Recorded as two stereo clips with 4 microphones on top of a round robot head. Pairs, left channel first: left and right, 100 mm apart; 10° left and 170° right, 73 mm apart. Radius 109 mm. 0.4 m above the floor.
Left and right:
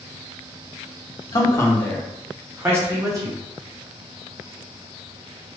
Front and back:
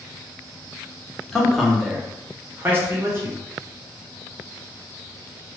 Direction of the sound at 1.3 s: 90° left.